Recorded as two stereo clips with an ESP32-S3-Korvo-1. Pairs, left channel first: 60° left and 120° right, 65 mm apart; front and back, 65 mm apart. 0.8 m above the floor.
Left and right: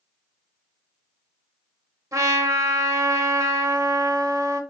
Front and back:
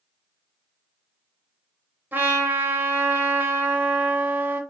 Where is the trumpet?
125° right, 0.8 m.